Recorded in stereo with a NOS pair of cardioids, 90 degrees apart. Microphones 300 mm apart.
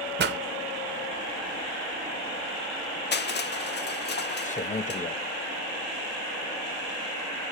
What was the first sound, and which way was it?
A pop, 35° right.